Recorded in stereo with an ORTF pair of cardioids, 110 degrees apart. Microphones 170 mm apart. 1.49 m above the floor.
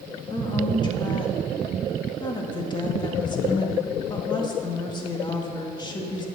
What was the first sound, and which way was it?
A woman speaking, 25° left.